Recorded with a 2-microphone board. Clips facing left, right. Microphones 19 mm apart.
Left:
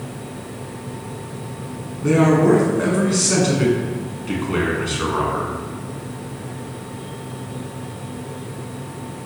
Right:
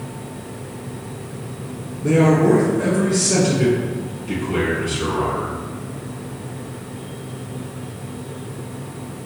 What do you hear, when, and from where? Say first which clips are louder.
2.0 s a man speaking: even; 45° left (ahead or behind), 1.6 m